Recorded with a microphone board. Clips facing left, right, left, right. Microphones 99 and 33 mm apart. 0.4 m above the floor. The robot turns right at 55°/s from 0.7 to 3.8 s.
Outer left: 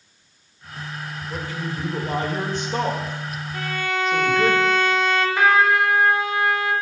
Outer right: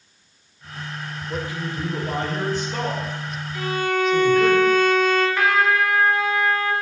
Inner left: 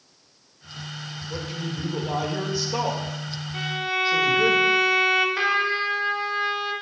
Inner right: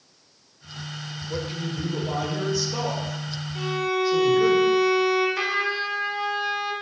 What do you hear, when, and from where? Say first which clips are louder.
1.3 s a man speaking: outer right 2 dB, inner right 2 dB; 35° right, 1.6 m; by 4.5 s 100° left, 1.6 m
3.5 s a violin: outer right 4 dB, inner right 1 dB; 50° left (ahead or behind), 0.8 m; by 5.3 s 65° left (ahead or behind), 0.8 m
5.4 s a trumpet: outer left 2 dB, inner left 2 dB; 20° left (ahead or behind), 1.3 m